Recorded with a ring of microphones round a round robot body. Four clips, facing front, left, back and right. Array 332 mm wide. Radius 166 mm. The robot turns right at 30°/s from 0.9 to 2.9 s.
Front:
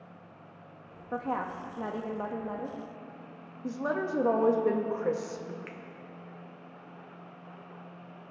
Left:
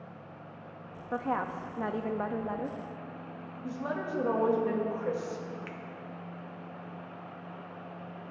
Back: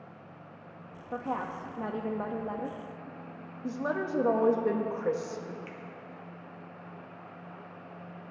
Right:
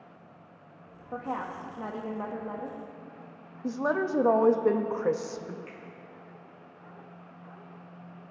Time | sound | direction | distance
1.1 | a woman speaking | 65° left | 0.5 m
3.6 | a woman speaking | 90° right | 0.5 m
5.7 | a finger snap | 70° left | 0.7 m